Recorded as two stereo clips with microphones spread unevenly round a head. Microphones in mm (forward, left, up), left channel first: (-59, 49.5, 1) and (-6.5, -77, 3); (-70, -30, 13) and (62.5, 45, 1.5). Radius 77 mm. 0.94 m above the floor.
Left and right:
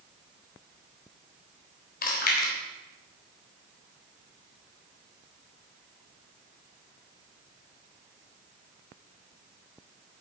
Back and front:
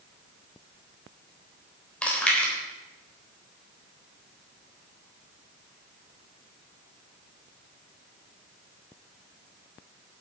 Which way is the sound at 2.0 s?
125° left.